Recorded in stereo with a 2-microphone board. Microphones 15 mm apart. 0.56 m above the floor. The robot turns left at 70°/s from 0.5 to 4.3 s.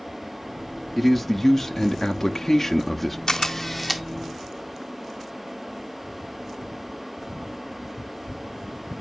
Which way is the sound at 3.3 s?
45° left.